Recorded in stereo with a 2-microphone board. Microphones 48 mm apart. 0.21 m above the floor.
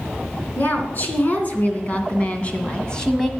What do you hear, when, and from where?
0.6 s a woman speaking: 40° left (ahead or behind), 3 m; by 3.3 s 10° left (ahead or behind), 1.6 m